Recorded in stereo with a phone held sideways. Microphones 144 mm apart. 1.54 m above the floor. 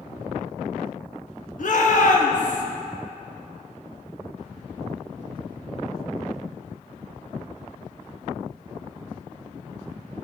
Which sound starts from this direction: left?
A shout, at 1.6 s.